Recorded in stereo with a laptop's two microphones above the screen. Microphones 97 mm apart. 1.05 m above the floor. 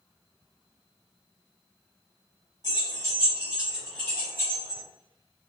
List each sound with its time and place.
2.6 s keys jangling: 45° right (ahead or behind), 1.2 m; by 4.8 s 40° left (ahead or behind), 1.1 m